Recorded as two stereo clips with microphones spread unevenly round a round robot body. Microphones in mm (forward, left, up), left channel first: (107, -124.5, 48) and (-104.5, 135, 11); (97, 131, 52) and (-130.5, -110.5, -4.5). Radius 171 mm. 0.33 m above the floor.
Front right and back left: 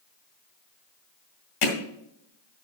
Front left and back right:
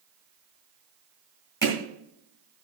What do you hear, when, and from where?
1.6 s hammering: 35° right, 3 m